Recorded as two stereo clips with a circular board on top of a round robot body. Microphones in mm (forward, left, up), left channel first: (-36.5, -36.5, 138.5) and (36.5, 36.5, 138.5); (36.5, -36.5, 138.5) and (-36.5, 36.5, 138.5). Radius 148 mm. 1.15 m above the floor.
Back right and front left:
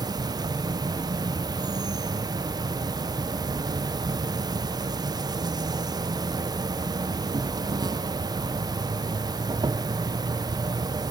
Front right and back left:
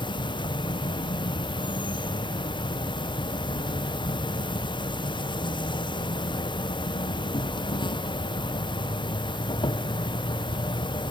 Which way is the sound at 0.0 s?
5° right.